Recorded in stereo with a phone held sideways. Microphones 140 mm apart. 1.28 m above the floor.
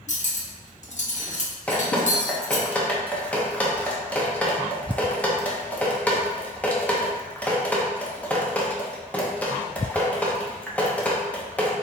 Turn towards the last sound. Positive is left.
turn(degrees=10)  # may be behind; listen again after turning